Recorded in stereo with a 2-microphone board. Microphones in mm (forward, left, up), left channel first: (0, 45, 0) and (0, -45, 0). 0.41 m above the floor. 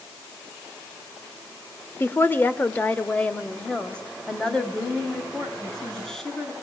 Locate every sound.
2.0 s a woman speaking: 25° left (ahead or behind), 1.2 m; by 6.5 s 5° left (ahead or behind), 4.5 m